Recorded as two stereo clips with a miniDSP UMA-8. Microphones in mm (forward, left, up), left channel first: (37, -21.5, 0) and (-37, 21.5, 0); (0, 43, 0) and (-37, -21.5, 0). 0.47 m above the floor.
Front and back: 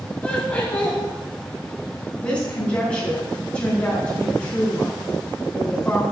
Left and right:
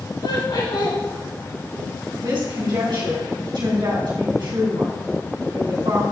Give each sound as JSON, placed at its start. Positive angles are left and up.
{"t": 0.2, "sound": "laughter", "azimuth_deg": 45, "distance_m": 3.5}
{"t": 2.2, "sound": "a woman speaking", "azimuth_deg": -100, "distance_m": 3.0}